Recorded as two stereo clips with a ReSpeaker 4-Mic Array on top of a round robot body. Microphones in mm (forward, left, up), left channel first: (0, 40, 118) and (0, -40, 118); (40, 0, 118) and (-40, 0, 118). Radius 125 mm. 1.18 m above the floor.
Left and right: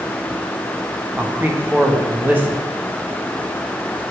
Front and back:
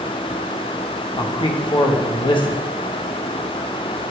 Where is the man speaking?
20° right, 1.5 m.